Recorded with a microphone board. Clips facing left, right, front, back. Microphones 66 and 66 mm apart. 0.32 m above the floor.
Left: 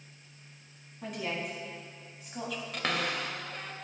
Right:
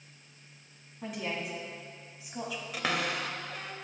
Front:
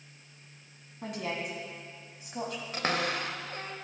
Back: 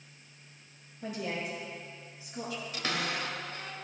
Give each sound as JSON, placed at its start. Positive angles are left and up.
{"t": 1.0, "sound": "a woman speaking", "azimuth_deg": 0, "distance_m": 2.5}
{"t": 2.7, "sound": "a cupboard door", "azimuth_deg": -5, "distance_m": 0.8}